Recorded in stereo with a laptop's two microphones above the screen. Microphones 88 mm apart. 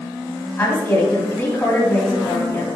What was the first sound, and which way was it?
A woman speaking, 30° left (ahead or behind).